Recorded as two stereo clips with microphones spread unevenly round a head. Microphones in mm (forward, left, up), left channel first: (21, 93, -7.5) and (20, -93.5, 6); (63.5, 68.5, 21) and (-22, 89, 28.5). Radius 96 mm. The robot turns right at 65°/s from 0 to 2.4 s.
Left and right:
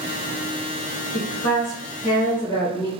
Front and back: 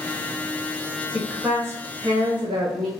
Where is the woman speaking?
90° left, 0.8 m; by 2.9 s 170° left, 0.8 m.